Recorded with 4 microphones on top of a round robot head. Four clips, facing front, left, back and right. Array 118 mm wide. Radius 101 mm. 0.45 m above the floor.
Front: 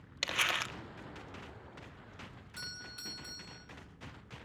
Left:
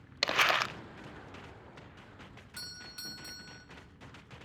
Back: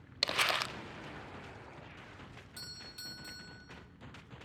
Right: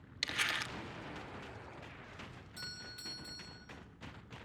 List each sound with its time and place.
0.2 s crumpling: 105° left, 0.7 m
2.6 s a doorbell: 95° left, 7.5 m